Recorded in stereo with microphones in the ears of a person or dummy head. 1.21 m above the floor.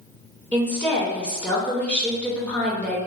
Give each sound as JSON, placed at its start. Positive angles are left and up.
{"t": 0.5, "sound": "a woman speaking", "side_deg": 10, "distance_m": 0.6}